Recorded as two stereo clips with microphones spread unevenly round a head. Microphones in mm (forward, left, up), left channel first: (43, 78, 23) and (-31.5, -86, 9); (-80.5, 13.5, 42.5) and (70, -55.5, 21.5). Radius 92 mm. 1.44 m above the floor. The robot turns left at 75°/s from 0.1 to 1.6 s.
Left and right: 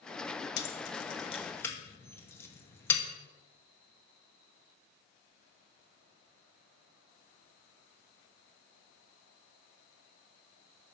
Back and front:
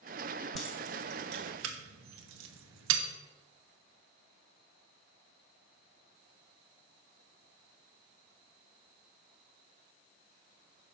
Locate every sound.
0.6 s keys jangling: 70° left, 1.1 m; by 3.0 s 10° right, 1.1 m